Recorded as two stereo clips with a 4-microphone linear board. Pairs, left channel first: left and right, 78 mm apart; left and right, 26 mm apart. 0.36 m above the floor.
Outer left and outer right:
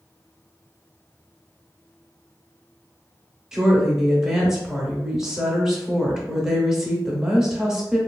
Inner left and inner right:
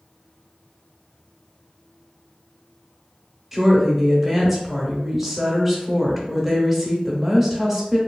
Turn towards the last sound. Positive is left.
turn(degrees=-5)  # may be behind; listen again after turning